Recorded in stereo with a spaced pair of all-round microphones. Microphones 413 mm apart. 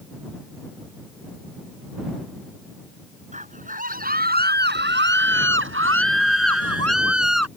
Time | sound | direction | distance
3.3 | a scream | 20° right (ahead or behind) | ?